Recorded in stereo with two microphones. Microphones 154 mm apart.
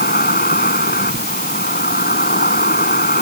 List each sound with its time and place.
0.0 s an insect: 90° left